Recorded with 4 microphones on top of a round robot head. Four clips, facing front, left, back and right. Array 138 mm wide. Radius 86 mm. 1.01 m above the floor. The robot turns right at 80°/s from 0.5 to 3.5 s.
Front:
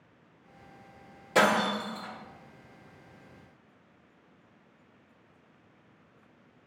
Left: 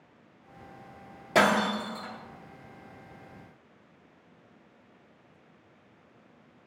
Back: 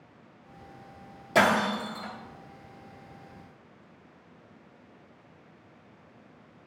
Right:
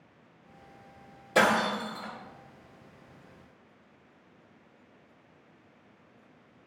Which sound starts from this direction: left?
Breaking glass, at 1.4 s.